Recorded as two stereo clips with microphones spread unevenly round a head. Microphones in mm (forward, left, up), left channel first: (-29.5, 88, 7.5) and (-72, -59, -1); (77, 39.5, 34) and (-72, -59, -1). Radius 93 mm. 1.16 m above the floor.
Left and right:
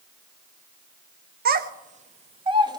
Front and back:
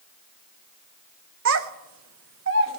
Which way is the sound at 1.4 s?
130° right.